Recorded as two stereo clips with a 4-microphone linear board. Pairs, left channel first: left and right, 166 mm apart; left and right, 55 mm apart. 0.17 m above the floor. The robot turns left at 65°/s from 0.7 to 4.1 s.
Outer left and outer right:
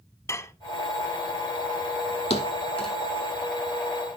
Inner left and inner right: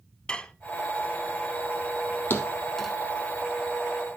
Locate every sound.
0.3 s dishes clattering: 15° left (ahead or behind), 0.7 m
2.3 s a thud: 35° left (ahead or behind), 1.8 m; by 2.9 s 5° right (ahead or behind), 1.8 m